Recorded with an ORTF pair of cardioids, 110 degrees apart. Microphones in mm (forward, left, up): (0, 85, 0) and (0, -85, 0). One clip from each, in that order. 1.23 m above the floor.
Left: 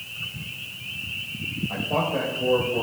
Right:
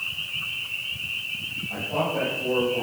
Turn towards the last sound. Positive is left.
turn(degrees=55)